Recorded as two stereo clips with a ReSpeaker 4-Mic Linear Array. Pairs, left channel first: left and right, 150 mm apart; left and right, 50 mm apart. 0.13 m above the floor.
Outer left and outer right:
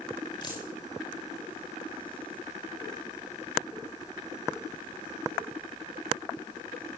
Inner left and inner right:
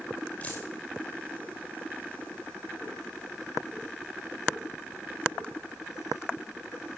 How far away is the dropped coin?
About 6 m.